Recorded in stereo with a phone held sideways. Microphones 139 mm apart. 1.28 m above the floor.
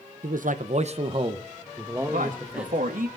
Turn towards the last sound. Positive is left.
turn(degrees=-80)